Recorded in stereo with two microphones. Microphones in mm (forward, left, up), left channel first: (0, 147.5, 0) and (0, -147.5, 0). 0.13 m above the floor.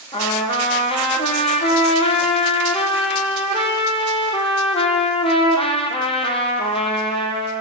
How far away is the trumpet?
About 1.3 m.